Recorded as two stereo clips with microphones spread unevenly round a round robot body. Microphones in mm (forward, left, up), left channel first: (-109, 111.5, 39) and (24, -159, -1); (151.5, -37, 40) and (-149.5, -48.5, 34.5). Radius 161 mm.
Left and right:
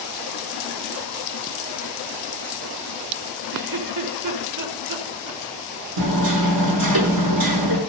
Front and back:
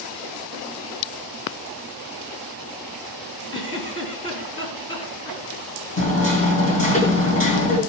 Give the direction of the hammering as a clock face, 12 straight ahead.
2 o'clock.